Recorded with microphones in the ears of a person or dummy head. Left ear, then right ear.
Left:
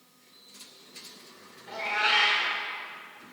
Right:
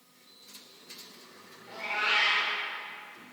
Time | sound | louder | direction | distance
1.7 | a cat meowing | left 3 dB | 20° left (ahead or behind) | 1.9 m